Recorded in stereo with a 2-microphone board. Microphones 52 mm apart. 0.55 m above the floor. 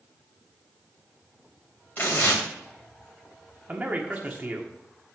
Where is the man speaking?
30° right (ahead or behind), 1.3 m.